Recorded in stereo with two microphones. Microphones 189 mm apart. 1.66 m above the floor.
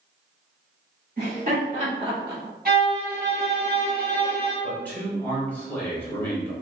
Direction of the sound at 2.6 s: 50° right (ahead or behind).